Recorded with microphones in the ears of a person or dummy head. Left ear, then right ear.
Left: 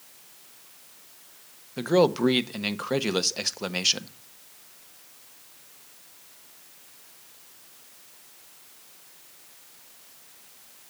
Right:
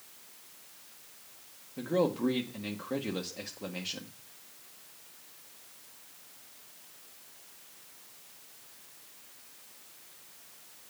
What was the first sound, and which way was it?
A man speaking, 60° left (ahead or behind).